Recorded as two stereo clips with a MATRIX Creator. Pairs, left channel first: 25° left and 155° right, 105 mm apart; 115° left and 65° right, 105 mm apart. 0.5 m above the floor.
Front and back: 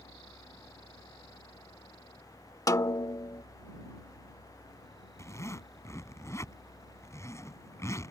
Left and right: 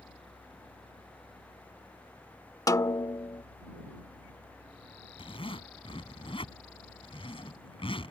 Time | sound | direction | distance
2.7 | a snare drum | 70° left | ?
5.2 | a zipper | 85° left | ?